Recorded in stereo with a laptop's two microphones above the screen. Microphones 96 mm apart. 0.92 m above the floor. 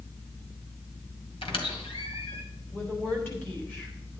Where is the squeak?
75° left (ahead or behind), 2.0 m.